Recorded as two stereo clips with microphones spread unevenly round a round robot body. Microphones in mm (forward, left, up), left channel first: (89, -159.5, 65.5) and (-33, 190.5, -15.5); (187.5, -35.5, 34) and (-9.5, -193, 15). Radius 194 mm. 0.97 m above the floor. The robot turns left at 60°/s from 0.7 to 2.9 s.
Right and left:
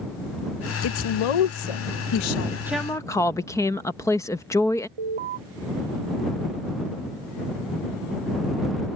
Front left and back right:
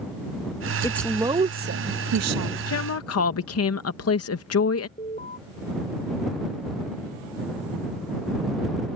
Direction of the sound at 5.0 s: 115° left.